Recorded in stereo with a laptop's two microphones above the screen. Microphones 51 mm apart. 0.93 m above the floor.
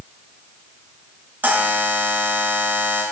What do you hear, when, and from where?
1.4 s a buzzer: 35° right (ahead or behind), 1.2 m